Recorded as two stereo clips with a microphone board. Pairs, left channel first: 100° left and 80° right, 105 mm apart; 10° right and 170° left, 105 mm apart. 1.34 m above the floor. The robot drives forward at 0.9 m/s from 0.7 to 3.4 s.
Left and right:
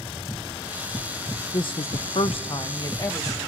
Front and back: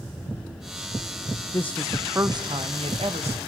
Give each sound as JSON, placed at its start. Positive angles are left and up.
{"t": 1.5, "sound": "a woman speaking", "azimuth_deg": 50, "distance_m": 0.6}